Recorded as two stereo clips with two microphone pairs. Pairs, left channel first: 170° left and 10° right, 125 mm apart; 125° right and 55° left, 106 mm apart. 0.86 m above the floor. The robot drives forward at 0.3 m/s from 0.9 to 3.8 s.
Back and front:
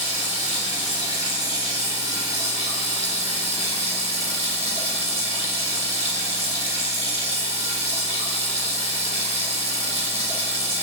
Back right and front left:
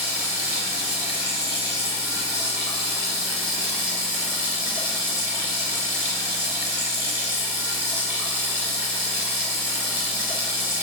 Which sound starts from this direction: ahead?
Running water, at 0.0 s.